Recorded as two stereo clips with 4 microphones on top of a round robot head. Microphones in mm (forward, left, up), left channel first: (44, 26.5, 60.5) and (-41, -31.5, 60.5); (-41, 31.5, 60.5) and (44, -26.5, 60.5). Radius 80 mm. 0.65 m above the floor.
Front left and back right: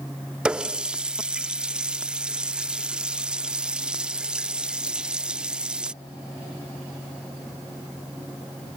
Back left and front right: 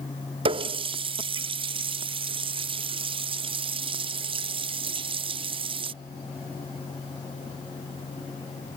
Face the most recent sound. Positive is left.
turn(degrees=-65)